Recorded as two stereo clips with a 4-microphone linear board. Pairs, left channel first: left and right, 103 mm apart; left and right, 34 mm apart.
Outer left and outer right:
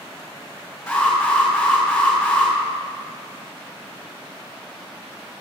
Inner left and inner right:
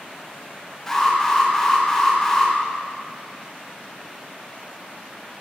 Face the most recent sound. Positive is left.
turn(degrees=5)  # may be behind; listen again after turning